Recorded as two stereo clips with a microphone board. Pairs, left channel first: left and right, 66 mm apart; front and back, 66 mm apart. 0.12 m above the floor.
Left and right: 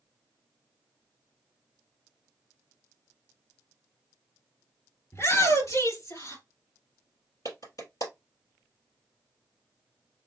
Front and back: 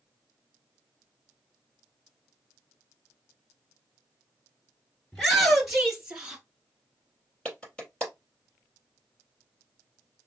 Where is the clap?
75° left, 3 m.